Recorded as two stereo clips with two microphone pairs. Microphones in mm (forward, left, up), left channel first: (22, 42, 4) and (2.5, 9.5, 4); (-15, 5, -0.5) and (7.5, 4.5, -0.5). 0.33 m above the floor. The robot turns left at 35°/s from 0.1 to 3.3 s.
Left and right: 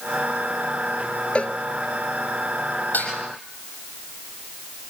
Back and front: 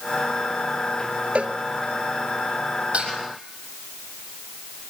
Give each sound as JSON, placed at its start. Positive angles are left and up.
{"t": 1.4, "sound": "a cowbell", "azimuth_deg": 10, "distance_m": 1.1}
{"t": 2.9, "sound": "dishes clattering", "azimuth_deg": 30, "distance_m": 7.5}